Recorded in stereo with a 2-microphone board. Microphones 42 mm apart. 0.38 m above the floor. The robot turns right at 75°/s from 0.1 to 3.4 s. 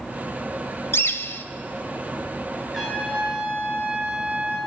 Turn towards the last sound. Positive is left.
turn(degrees=-135)